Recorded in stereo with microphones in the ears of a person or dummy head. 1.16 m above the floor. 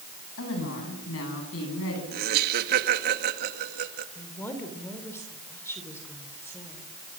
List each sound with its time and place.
0.4 s a woman speaking: 80° left, 9 m; by 2.0 s 75° left (ahead or behind), 11 m
2.1 s laughter: 55° right (ahead or behind), 2 m
4.2 s a woman speaking: 10° left (ahead or behind), 3.5 m